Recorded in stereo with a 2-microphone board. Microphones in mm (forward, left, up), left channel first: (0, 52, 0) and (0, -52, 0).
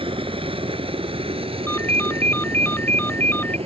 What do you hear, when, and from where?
0.0 s a helicopter: 55° right (ahead or behind); by 3.7 s 65° right (ahead or behind)
1.7 s a ringtone: 20° left (ahead or behind)